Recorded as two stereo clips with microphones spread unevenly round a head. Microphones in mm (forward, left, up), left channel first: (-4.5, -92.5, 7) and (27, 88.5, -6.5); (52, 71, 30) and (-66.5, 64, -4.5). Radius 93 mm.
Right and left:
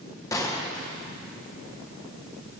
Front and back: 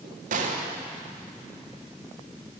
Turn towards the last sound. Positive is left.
turn(degrees=-175)